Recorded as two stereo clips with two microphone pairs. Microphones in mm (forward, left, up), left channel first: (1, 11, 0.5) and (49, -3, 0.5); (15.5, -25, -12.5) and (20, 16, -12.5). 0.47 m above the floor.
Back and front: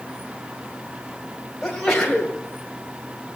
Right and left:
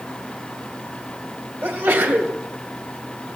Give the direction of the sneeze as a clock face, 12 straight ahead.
9 o'clock.